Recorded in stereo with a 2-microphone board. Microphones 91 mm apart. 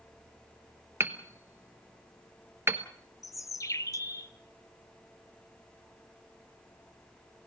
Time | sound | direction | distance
1.0 | hammering | 25° right (ahead or behind) | 1.2 m
3.2 | a bird | 35° left (ahead or behind) | 0.6 m